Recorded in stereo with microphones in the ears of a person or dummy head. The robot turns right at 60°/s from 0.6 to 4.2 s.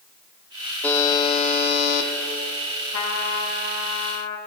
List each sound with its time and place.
0.8 s a buzzer: 10° left, 1.2 m; by 2.1 s 85° left, 1.2 m
2.9 s a trumpet: 80° left, 1.8 m; by 4.4 s 155° left, 1.8 m